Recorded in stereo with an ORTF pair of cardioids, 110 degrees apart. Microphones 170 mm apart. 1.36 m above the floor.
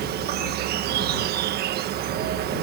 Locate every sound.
0.0 s an insect: 70° right